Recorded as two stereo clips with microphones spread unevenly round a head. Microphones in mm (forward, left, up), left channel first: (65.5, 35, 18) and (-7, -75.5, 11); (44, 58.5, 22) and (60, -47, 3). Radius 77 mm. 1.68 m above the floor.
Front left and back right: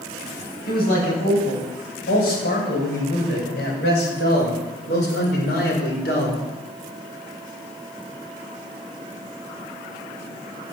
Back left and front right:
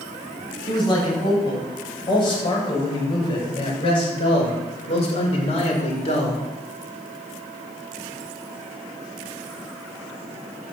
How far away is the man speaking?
About 8.5 m.